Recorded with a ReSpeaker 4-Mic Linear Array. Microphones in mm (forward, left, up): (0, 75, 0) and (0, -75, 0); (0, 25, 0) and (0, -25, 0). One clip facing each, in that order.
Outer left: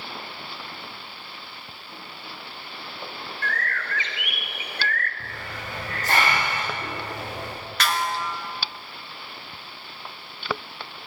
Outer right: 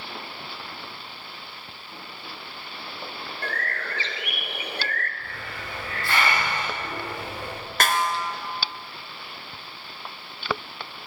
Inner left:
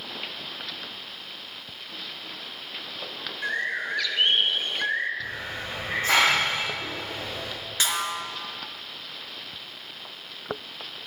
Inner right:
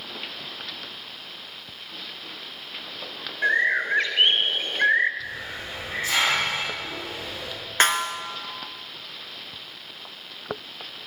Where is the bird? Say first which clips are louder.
Outer left 1 dB, inner right 7 dB; 35° right (ahead or behind), 1.7 m.